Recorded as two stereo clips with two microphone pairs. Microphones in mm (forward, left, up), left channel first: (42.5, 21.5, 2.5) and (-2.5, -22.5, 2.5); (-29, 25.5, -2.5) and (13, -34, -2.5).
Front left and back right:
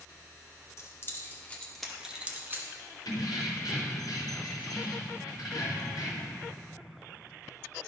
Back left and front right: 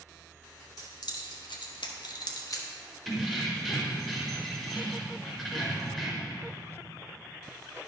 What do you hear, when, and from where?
0.8 s keys jangling: 90° left, 1.4 m; by 2.7 s 170° left, 1.1 m
3.0 s keys jangling: 35° left, 2 m